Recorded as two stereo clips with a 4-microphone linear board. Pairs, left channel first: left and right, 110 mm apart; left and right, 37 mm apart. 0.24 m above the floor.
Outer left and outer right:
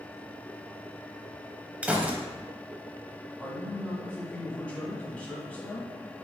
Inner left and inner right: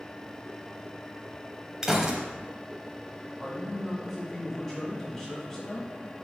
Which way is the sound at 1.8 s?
15° right (ahead or behind).